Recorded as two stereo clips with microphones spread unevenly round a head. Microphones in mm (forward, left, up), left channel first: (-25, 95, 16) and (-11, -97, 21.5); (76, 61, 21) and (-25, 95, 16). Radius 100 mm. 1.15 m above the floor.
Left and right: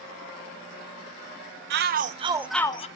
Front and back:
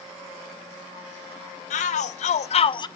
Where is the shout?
45° right, 0.8 m; by 2.9 s 35° left, 0.5 m.